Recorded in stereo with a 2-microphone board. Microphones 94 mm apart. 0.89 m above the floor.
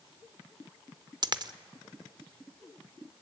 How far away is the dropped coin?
About 0.6 m.